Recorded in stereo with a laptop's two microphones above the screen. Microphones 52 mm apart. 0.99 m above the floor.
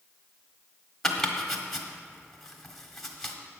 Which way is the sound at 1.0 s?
5° left (ahead or behind).